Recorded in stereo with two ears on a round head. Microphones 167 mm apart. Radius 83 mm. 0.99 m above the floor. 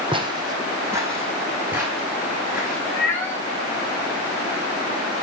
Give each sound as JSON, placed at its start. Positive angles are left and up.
{"t": 0.1, "sound": "footsteps", "side_deg": -25, "distance_m": 2.0}
{"t": 2.9, "sound": "a cat meowing", "side_deg": 10, "distance_m": 4.0}